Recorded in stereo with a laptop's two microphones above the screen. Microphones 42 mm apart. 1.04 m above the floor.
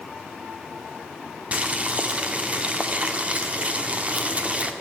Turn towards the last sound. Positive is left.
turn(degrees=-35)  # may be behind; listen again after turning